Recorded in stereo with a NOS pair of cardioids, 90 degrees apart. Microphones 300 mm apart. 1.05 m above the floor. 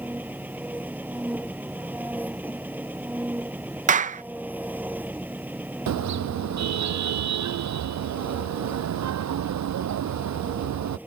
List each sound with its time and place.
0.0 s an engine running: 5° right
3.9 s a clap: 25° right
5.9 s a car horn: 65° right